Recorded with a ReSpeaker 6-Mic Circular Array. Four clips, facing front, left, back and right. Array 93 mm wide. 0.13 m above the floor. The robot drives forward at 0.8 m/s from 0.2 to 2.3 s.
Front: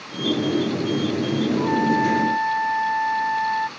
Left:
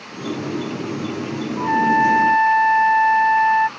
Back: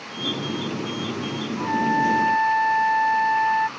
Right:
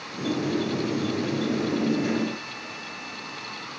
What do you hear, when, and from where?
1.6 s a trumpet: 85° left; by 3.7 s 95° left